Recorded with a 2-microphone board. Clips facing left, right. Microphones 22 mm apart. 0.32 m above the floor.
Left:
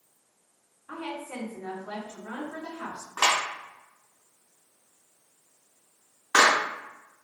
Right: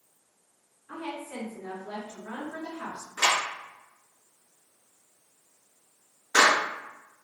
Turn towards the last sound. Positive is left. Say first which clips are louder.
# left 1 dB
turn(degrees=65)  # may be behind; listen again after turning